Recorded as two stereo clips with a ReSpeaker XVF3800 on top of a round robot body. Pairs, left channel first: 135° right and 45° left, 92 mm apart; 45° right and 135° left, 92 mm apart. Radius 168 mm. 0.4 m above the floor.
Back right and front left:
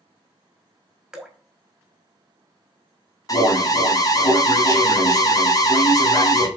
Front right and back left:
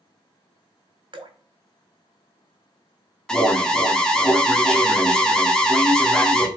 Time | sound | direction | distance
1.1 | dripping | 130° left | 2.5 m
3.3 | an alarm | 125° right | 1.8 m